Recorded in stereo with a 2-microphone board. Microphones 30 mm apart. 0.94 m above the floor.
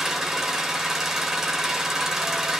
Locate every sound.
0.0 s an engine running: 15° right (ahead or behind), 3.5 m